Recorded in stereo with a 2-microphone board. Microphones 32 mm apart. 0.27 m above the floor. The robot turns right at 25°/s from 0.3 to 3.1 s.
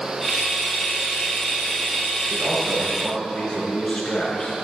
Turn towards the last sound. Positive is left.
turn(degrees=35)  # may be behind; listen again after turning